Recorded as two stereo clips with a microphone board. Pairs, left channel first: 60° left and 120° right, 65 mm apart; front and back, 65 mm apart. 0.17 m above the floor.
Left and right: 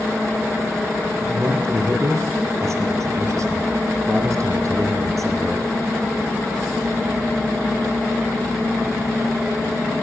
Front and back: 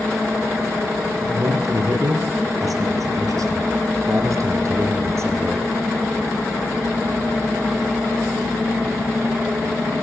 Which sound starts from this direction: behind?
A man speaking, at 1.2 s.